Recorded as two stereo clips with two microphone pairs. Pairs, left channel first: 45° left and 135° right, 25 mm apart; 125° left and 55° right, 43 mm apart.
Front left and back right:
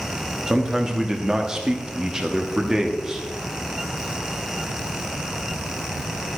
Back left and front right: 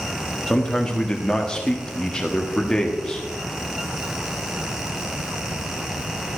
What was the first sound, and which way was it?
A man speaking, straight behind.